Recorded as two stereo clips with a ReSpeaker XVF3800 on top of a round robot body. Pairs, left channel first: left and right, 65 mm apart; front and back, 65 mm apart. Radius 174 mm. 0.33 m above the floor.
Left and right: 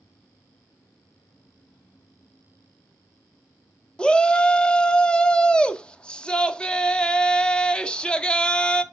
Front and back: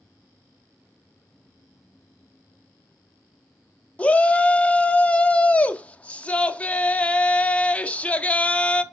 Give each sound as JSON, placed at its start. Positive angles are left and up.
{"t": 4.0, "sound": "a shout", "azimuth_deg": 40, "distance_m": 0.9}